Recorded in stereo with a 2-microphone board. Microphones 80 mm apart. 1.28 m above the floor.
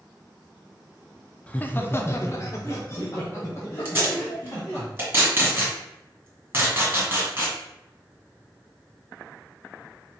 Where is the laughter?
15° left (ahead or behind), 0.6 m; by 4.8 s 35° left (ahead or behind), 1.7 m.